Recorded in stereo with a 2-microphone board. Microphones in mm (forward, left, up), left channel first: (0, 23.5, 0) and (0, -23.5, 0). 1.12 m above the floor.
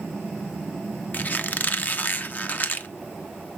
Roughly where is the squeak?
Left.